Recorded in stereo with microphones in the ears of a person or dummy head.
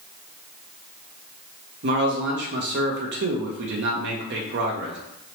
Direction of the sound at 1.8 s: 50° right (ahead or behind).